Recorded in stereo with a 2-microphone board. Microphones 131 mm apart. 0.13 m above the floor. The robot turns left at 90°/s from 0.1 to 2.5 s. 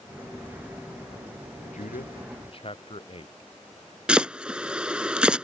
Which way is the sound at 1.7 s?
65° left (ahead or behind).